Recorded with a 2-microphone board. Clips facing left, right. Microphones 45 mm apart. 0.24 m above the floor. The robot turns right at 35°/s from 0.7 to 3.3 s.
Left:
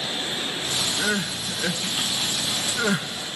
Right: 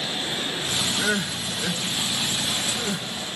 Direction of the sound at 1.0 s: 5° left (ahead or behind).